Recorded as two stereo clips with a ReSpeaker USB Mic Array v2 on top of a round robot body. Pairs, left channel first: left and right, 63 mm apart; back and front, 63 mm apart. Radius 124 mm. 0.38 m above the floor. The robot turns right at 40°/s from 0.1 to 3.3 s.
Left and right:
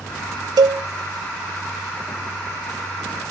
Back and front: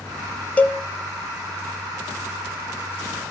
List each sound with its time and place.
0.6 s a cowbell: 110° right, 2.5 m; by 0.8 s 100° right, 2.5 m